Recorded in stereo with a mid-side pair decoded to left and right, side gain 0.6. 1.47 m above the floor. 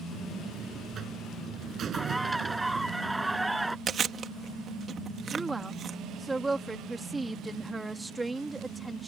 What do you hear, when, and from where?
0.1 s a buzzer: 40° right
1.9 s a bird: 5° right
3.9 s chewing: 35° right
5.3 s a woman speaking: 10° right